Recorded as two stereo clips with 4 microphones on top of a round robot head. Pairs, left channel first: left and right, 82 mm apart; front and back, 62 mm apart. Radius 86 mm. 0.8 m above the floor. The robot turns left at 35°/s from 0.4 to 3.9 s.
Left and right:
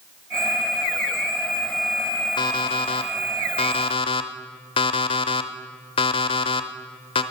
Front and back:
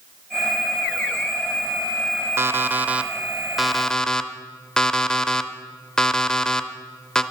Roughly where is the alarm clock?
Behind left.